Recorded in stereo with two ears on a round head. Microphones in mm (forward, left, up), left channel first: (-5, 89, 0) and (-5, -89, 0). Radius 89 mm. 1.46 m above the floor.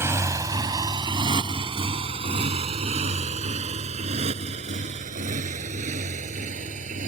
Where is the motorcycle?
15° right (ahead or behind); by 7.1 s 40° right (ahead or behind).